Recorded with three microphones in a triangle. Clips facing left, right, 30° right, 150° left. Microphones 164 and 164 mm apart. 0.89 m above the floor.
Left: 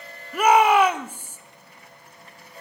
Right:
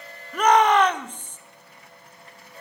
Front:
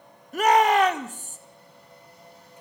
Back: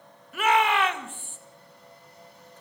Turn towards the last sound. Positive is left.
turn(degrees=10)